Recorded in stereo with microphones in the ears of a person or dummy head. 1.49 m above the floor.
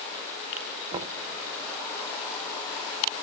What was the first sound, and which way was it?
Knocking, 20° right (ahead or behind).